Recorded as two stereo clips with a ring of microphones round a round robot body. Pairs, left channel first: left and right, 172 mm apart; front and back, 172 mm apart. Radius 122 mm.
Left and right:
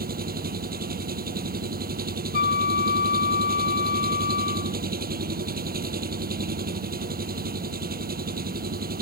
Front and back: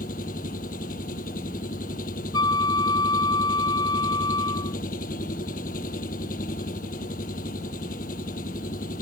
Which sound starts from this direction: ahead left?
A flute, at 2.3 s.